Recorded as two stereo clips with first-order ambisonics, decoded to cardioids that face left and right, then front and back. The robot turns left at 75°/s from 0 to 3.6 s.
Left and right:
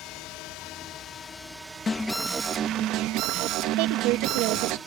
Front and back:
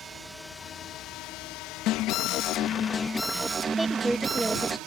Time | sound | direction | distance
0.0 | a drone | 120° left | ?
1.9 | an alarm | 20° left | ?
3.8 | a woman speaking | 95° right | ?